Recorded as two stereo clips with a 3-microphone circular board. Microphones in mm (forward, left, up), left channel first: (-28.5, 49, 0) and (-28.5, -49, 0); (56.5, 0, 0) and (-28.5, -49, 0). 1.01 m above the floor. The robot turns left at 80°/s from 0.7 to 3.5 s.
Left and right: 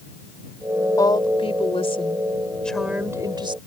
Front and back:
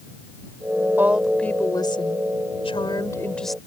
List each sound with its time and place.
1.0 s a woman speaking: 145° left; by 3.6 s 60° right